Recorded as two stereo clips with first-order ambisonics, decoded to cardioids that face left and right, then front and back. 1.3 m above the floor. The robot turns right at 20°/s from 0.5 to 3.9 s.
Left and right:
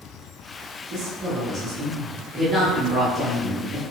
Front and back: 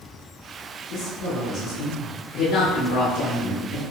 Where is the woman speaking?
35° right, 1.3 m; by 3.8 s 20° left, 1.3 m.